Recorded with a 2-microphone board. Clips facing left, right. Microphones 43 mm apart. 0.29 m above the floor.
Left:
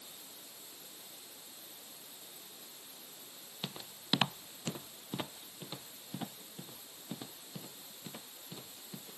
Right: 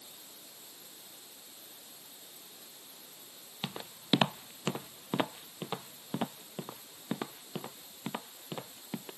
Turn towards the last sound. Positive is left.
turn(degrees=-50)  # may be behind; listen again after turning